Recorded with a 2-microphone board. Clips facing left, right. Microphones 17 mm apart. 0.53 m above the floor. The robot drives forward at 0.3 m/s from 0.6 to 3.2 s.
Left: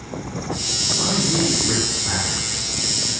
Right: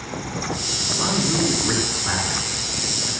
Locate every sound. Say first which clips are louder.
1.0 s a man speaking: left 1 dB; 20° right (ahead or behind), 5 m